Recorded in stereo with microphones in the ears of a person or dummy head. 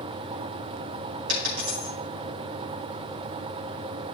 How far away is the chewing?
I don't hear chewing.